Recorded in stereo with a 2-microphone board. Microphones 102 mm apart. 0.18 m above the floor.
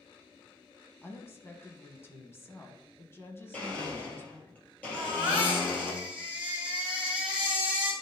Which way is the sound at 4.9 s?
10° right (ahead or behind).